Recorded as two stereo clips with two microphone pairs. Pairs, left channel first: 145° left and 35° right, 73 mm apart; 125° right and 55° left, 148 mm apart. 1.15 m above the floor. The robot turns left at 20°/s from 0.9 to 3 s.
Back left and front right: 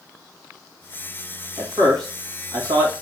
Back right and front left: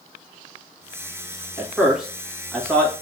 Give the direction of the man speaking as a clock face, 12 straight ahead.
1 o'clock.